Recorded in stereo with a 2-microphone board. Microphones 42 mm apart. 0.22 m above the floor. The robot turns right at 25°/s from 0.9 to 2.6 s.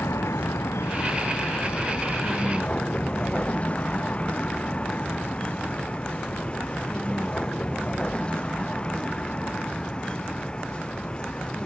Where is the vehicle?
80° left; by 11.7 s 20° left (ahead or behind).